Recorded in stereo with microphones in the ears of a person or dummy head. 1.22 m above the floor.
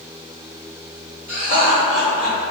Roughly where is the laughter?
Left.